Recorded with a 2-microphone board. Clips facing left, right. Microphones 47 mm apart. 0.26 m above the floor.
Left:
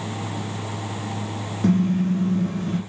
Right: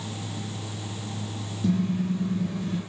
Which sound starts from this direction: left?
A car horn, at 1.6 s.